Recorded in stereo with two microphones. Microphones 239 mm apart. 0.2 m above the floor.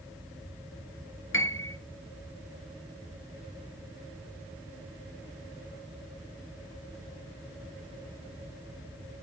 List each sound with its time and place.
1.3 s a piano: 55° left (ahead or behind), 1.7 m